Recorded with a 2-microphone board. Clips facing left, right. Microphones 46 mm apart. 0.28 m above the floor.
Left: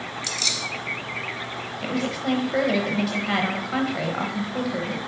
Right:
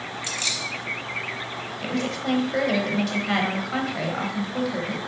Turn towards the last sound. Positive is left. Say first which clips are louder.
# left 1 dB
turn(degrees=5)  # may be behind; listen again after turning